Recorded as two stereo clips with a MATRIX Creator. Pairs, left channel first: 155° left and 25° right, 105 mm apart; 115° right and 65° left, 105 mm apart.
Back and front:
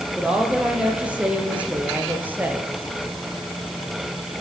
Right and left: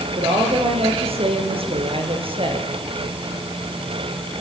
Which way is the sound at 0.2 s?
55° left.